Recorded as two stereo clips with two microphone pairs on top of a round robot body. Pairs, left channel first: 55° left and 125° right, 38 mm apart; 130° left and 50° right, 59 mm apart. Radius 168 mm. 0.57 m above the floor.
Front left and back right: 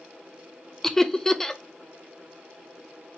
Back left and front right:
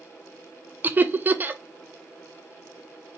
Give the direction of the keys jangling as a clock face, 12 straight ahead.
No keys jangling in this recording.